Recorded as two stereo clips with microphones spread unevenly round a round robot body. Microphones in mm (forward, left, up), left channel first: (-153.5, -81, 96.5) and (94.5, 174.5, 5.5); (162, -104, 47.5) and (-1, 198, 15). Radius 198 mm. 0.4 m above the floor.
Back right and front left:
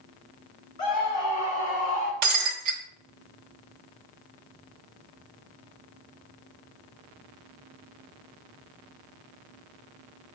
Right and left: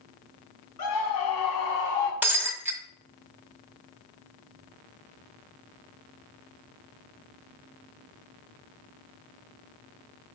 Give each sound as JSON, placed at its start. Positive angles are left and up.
{"t": 0.8, "sound": "a scream", "azimuth_deg": -60, "distance_m": 3.0}
{"t": 2.2, "sound": "breaking glass", "azimuth_deg": 35, "distance_m": 1.6}